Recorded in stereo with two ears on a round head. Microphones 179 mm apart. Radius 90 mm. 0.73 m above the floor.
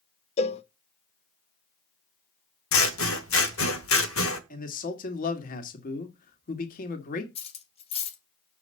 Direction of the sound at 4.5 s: 45° left (ahead or behind).